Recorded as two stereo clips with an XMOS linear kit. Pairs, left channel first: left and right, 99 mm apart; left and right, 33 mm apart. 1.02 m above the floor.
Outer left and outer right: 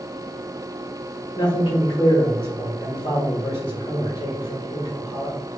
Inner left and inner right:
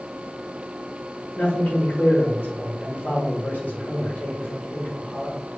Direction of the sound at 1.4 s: 65° left (ahead or behind).